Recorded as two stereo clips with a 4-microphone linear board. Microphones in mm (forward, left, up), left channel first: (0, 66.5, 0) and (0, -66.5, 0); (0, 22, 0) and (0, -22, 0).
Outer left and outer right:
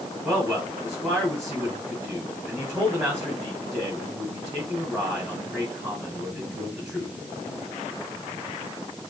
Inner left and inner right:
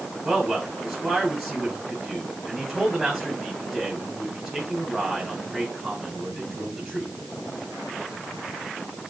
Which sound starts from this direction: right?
A man speaking, at 0.2 s.